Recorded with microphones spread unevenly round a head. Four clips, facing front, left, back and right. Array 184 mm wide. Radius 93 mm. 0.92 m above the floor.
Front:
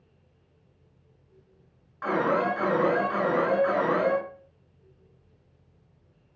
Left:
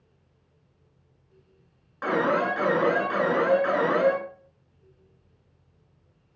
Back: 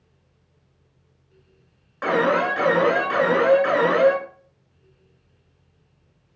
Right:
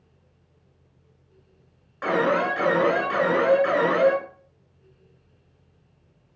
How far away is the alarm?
About 6.5 m.